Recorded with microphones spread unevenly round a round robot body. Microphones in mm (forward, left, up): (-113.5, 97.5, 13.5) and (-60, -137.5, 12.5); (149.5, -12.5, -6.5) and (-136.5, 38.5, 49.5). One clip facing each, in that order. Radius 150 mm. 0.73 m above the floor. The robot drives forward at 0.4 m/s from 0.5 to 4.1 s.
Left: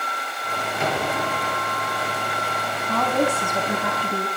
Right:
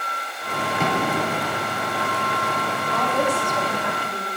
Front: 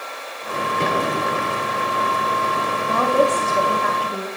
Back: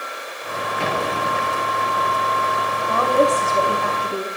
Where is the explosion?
85° right, 6 m.